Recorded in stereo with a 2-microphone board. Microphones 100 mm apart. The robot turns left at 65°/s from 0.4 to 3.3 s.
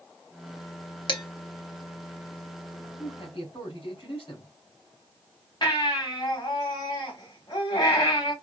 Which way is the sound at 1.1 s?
50° left (ahead or behind).